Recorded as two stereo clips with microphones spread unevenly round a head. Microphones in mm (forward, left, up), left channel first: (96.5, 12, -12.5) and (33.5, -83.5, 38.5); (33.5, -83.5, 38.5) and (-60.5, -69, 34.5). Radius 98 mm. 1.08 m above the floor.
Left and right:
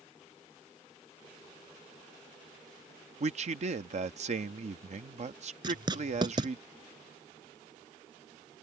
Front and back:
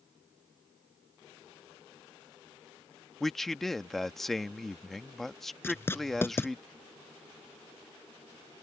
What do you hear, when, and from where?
3.2 s a man speaking: 95° right
5.6 s writing: 75° right